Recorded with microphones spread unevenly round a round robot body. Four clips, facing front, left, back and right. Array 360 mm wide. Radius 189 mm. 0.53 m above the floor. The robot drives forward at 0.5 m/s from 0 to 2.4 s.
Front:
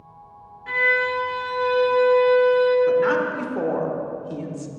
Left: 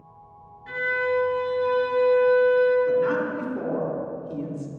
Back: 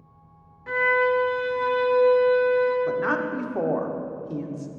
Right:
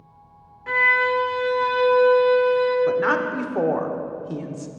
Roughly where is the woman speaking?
Right.